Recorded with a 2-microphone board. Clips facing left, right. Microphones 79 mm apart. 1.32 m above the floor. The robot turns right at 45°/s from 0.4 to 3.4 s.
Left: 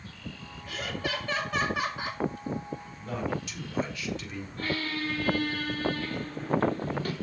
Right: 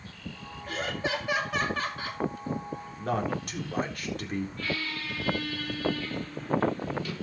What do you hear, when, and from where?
0.7 s laughter: 45° right, 2 m; by 2.2 s 30° left, 2 m
3.0 s a man speaking: 70° right (ahead or behind), 4 m; by 4.5 s 50° right (ahead or behind), 4 m
4.6 s a squeak: 45° left (ahead or behind), 3.5 m